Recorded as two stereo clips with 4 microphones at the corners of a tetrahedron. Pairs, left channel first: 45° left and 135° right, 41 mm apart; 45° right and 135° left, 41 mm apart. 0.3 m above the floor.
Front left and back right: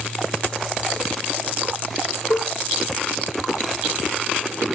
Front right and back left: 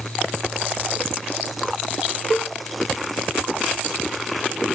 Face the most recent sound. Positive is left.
turn(degrees=35)